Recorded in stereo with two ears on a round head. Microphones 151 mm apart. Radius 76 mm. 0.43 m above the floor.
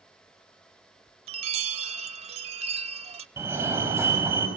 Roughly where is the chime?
Right.